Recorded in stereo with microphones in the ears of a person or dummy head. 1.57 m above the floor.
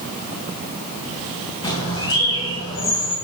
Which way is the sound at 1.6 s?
30° left (ahead or behind).